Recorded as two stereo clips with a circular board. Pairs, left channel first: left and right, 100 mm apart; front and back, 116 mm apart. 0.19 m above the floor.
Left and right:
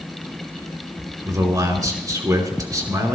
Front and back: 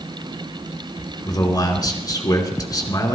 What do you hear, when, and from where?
1.2 s a man speaking: 45° right, 2.5 m